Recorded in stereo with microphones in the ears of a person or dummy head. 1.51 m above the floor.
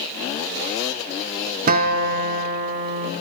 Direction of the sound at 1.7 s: 50° right (ahead or behind).